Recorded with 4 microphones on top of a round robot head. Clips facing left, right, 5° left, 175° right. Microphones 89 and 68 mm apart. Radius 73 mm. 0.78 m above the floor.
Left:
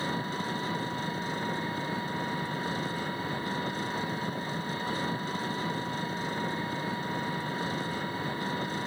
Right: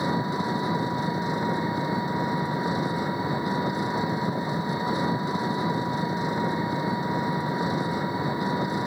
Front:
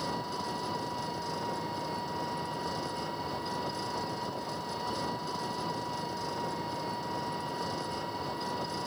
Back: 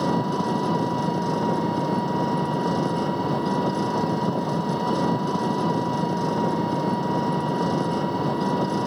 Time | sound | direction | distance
0.0 | an engine running | 165° right | ?